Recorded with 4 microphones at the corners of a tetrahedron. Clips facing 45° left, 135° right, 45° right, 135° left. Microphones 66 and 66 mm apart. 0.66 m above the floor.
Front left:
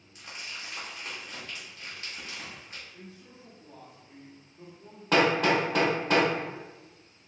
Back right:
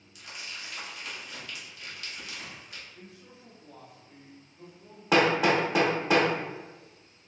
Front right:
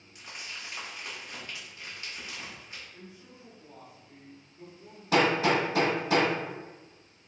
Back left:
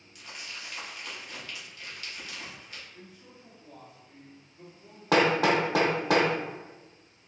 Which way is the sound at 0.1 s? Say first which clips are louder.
Front left 1 dB, even; 10° left.